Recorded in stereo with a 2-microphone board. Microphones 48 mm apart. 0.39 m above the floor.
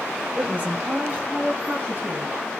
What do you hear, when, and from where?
0.4 s a woman speaking: 25° right (ahead or behind), 1.1 m; by 2.4 s 45° right (ahead or behind), 4 m